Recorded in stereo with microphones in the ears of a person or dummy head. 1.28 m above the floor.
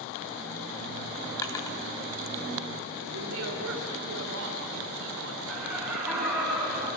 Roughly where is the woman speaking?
Right.